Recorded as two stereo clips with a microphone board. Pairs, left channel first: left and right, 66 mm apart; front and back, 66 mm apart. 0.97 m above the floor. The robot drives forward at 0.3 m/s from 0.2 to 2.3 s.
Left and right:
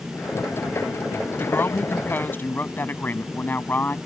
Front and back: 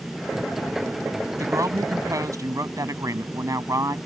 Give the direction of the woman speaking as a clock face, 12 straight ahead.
7 o'clock.